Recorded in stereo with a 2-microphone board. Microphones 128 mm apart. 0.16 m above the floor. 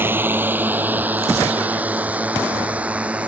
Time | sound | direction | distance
0.0 | a drone | 15° right (ahead or behind) | ?